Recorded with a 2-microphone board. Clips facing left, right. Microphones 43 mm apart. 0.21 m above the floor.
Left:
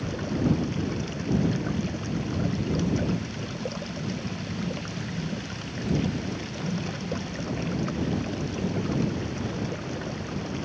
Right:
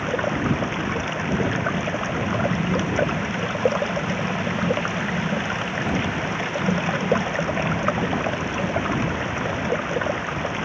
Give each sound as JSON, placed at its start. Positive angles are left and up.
{"t": 0.0, "sound": "running water", "side_deg": -50}